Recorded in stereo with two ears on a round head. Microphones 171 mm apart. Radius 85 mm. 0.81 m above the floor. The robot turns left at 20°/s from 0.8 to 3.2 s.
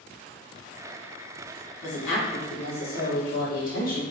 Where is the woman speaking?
70° left (ahead or behind), 1.7 m; by 4.0 s 45° left (ahead or behind), 1.7 m.